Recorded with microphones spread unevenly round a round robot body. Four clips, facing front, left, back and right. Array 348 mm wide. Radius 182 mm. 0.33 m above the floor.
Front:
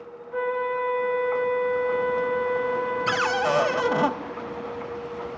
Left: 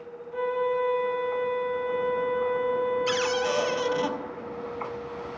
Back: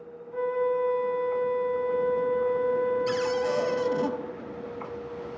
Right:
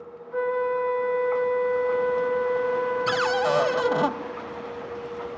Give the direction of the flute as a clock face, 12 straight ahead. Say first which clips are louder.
Right 2 dB, even; 1 o'clock.